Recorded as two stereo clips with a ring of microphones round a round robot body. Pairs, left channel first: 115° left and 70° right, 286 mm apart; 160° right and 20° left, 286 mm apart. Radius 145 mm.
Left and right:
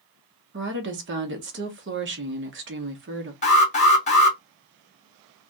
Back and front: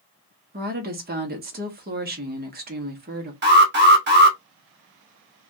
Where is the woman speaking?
30° right, 1.0 m.